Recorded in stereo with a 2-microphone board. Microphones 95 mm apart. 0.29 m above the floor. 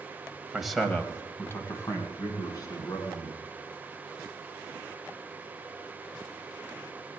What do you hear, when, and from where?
0.5 s a man speaking: 5° right (ahead or behind), 1.3 m; by 3.4 s 45° left (ahead or behind), 3.5 m